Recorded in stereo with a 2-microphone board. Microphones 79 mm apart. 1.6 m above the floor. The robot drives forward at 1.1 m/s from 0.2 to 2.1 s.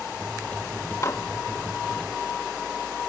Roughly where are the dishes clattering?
Left.